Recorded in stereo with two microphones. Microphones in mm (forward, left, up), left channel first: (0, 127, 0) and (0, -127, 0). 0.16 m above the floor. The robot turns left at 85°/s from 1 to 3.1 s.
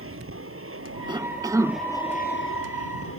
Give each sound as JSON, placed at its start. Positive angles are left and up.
{"t": 0.0, "sound": "an aircraft", "azimuth_deg": -115}
{"t": 1.1, "sound": "a cough", "side_deg": -20}